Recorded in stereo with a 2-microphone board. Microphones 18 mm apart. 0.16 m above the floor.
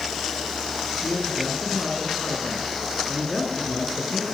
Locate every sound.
1.0 s a man speaking: 25° left (ahead or behind), 9.5 m